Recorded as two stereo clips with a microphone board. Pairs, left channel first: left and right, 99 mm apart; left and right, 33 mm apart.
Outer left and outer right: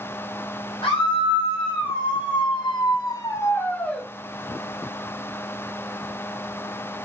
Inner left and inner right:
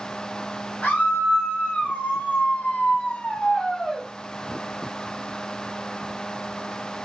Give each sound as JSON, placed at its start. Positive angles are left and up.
{"t": 0.8, "sound": "a scream", "side_deg": 70, "distance_m": 1.7}